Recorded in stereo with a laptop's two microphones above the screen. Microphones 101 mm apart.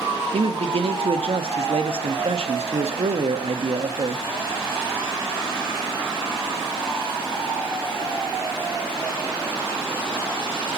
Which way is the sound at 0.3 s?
70° right (ahead or behind).